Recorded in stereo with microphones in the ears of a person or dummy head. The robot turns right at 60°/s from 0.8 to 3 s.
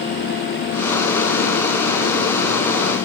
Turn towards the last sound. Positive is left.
No sound to turn to.